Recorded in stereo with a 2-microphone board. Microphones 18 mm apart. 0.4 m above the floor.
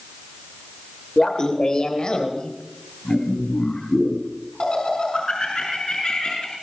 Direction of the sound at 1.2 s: 35° left (ahead or behind).